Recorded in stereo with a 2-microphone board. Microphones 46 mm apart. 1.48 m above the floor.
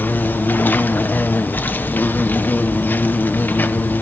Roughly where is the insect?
Left.